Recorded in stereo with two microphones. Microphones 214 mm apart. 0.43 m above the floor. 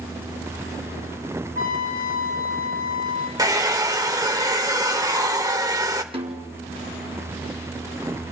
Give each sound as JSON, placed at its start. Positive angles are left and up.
{"t": 1.6, "sound": "a trumpet", "side_deg": 85, "distance_m": 6.5}
{"t": 3.4, "sound": "a hair dryer", "side_deg": -15, "distance_m": 1.2}
{"t": 6.1, "sound": "a snare drum", "side_deg": -25, "distance_m": 3.0}